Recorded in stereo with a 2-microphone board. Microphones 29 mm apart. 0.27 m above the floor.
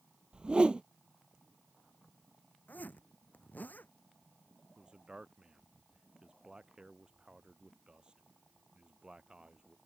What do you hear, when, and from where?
0.3 s a whoosh: 35° right (ahead or behind)
2.7 s a zipper: 75° left (ahead or behind)
4.8 s a man speaking: 30° right (ahead or behind)